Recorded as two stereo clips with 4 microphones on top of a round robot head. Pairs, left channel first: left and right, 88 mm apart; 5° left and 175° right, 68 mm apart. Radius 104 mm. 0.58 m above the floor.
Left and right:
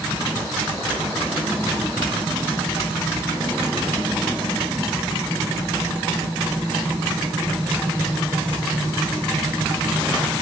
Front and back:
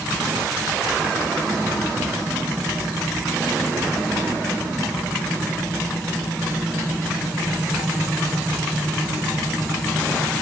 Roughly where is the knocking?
No knocking in this recording.